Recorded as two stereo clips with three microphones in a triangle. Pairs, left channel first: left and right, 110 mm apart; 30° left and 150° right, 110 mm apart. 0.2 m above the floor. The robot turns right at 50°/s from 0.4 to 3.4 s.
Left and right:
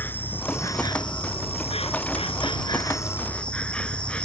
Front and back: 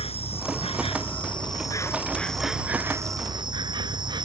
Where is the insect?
20° left; by 4.2 s 170° left.